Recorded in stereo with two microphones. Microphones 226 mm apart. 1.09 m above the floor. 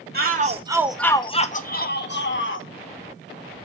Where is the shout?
45° right (ahead or behind), 0.7 m; by 2.7 s 60° left (ahead or behind), 1.2 m.